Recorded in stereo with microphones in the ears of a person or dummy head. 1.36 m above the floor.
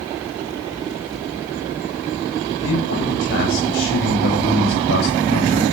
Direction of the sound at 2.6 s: 80° left.